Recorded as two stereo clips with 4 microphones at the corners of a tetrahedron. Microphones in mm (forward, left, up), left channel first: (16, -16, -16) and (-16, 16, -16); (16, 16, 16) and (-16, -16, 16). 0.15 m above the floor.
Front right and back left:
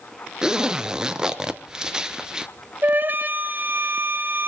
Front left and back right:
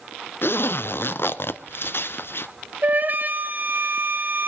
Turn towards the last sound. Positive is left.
turn(degrees=180)